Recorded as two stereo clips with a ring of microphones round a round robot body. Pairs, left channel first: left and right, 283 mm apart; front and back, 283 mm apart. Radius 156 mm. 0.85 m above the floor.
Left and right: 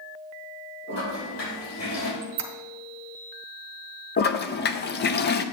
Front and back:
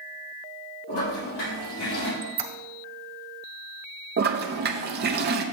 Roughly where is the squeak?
Behind right.